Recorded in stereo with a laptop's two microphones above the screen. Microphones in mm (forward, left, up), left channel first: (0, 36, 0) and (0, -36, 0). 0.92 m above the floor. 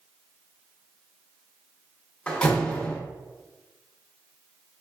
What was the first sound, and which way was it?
A door slam, 15° left (ahead or behind).